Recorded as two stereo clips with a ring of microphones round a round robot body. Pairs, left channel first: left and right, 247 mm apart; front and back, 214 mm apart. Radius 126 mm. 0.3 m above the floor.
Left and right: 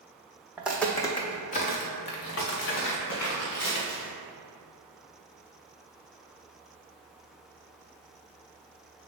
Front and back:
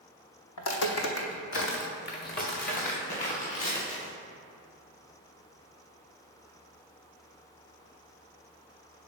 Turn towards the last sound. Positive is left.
turn(degrees=60)